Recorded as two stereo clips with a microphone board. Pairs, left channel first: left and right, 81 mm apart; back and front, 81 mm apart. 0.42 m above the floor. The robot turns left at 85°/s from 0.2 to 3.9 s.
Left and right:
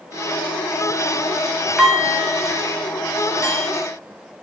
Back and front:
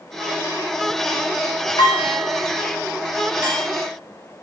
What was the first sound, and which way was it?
Dishes clattering, 170° right.